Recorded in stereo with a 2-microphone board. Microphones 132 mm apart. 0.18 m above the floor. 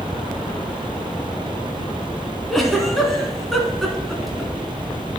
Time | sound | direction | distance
2.5 | a giggle | centre (ahead or behind) | 1.9 m